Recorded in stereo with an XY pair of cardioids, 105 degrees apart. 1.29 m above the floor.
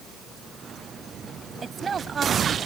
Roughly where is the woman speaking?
Ahead right.